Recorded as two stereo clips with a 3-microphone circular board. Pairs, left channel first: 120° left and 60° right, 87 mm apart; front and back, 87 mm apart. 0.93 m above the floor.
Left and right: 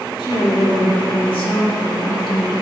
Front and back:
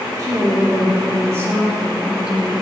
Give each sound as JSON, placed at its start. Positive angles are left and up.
{"t": 0.2, "sound": "a woman speaking", "azimuth_deg": 135, "distance_m": 2.5}